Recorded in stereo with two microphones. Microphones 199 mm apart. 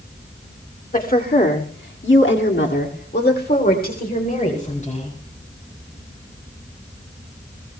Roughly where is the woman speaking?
Left.